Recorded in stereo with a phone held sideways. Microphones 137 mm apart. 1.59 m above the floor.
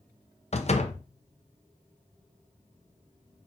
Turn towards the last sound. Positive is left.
turn(degrees=50)  # may be behind; listen again after turning